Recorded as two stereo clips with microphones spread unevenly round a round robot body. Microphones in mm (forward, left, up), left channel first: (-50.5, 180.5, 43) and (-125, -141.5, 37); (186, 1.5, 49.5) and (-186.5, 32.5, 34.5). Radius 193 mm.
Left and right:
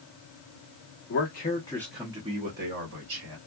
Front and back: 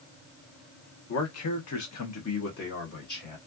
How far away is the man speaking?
About 1.0 m.